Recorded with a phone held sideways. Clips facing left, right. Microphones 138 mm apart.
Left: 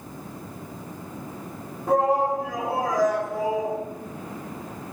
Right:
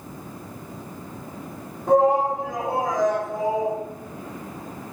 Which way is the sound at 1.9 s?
Centre (ahead or behind).